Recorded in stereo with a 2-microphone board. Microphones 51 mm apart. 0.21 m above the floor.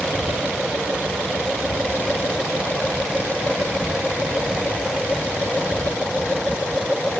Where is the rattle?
No rattle in this recording.